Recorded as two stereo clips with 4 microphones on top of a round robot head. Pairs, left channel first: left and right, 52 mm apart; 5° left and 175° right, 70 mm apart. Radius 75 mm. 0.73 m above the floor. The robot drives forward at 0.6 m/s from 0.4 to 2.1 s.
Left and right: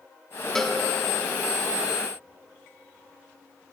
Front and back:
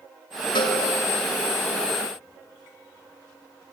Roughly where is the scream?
I don't hear a scream.